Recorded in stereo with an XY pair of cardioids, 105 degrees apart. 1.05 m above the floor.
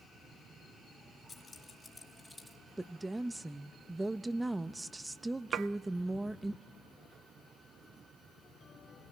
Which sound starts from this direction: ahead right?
Dishes clattering, at 5.5 s.